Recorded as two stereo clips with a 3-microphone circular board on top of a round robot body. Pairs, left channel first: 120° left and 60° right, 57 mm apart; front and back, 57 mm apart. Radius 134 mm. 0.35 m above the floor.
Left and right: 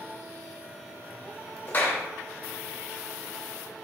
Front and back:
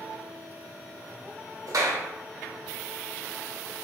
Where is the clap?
Straight behind, 1.7 m.